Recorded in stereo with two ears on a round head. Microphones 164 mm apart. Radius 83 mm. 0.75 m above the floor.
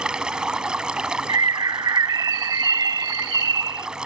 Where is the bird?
20° right (ahead or behind).